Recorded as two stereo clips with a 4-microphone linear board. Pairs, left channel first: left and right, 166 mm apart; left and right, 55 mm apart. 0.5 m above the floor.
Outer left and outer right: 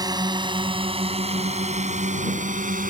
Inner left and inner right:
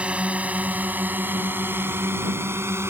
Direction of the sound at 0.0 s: 25° right (ahead or behind).